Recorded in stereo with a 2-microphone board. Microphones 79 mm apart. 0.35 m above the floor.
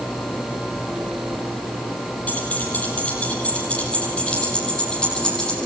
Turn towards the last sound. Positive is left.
turn(degrees=10)  # may be behind; listen again after turning